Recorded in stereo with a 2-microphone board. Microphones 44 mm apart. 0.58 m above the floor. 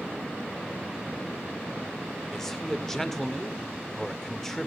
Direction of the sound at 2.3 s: 10° left (ahead or behind).